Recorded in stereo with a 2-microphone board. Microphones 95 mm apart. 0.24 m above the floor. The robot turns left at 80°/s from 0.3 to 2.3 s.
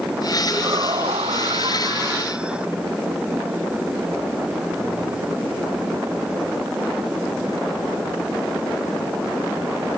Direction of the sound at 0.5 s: 25° right.